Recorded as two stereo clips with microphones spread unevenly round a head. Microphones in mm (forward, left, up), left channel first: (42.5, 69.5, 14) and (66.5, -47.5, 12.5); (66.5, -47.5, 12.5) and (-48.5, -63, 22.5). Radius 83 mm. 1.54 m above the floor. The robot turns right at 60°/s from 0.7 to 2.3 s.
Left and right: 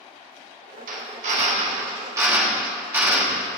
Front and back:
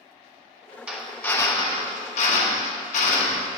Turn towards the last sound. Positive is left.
turn(degrees=-5)